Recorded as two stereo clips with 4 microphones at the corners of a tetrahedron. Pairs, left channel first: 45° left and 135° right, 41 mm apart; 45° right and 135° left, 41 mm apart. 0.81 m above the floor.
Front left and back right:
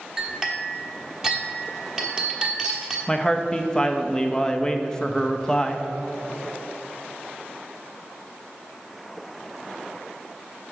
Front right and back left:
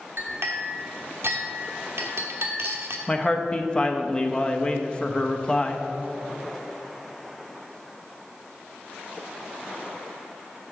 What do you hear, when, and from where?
0.2 s a clink: 150° left, 1.2 m
3.1 s a man speaking: 20° right, 0.6 m